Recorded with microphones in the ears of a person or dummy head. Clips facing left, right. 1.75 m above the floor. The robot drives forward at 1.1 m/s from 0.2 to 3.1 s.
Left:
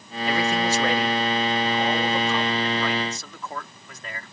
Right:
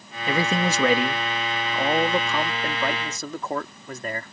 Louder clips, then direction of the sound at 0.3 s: Even; 70° right (ahead or behind).